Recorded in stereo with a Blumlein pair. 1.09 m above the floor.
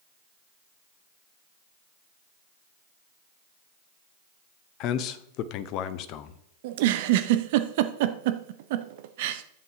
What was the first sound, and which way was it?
A man speaking, 40° left.